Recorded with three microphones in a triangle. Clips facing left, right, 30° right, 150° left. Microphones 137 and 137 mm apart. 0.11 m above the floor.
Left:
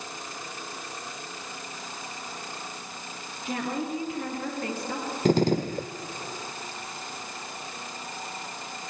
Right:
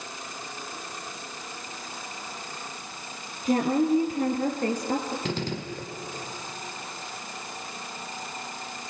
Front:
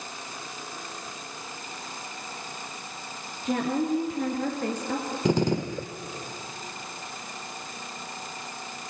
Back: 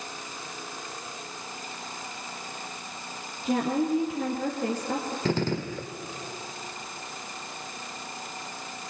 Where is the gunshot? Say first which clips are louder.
Left 9 dB, front 4 dB; 40° left, 1.1 m.